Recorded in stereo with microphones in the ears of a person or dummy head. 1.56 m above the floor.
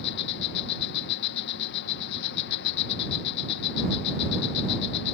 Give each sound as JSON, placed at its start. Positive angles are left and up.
{"t": 0.0, "sound": "an insect", "side_deg": 60}